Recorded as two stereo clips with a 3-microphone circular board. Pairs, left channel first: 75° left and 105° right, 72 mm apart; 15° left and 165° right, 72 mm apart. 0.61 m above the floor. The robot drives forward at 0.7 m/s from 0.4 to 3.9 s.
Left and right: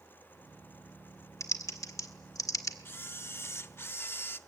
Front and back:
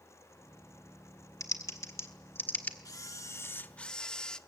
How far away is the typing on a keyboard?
About 1.7 m.